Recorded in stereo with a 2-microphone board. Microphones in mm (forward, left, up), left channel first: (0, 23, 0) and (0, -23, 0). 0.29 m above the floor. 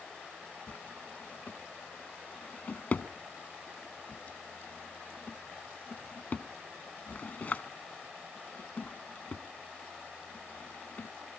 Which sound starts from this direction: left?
A drawer, at 0.7 s.